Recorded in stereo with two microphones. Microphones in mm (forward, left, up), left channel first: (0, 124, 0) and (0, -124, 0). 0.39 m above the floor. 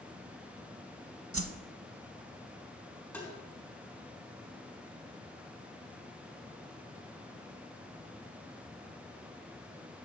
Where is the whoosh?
65° right (ahead or behind), 0.6 m.